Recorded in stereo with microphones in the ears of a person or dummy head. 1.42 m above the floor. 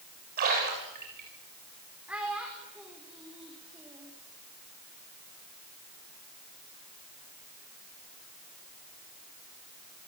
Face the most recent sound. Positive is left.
turn(degrees=-5)  # may be behind; listen again after turning